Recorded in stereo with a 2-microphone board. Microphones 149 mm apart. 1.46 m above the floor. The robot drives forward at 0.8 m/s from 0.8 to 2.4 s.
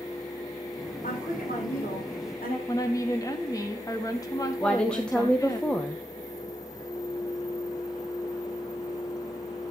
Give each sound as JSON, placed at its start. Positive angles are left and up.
{"t": 1.0, "sound": "a woman speaking", "side_deg": 70, "distance_m": 4.5}
{"t": 2.7, "sound": "a woman speaking", "side_deg": 25, "distance_m": 2.0}
{"t": 4.6, "sound": "a woman speaking", "side_deg": 5, "distance_m": 1.0}